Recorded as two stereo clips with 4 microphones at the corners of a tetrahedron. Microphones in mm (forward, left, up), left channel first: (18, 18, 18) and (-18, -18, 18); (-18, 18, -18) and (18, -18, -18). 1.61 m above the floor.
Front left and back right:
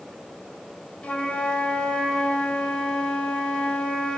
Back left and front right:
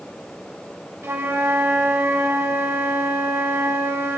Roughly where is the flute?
Ahead.